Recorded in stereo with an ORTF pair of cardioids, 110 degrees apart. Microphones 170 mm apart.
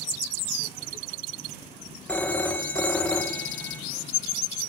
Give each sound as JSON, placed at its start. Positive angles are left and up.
{"t": 2.1, "sound": "a phone ringing", "azimuth_deg": 10, "distance_m": 0.7}